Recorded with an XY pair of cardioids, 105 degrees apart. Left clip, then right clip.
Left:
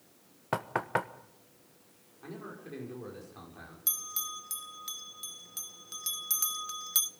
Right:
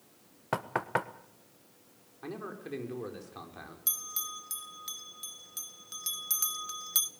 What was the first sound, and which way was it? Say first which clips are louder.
Knocking: even; straight ahead.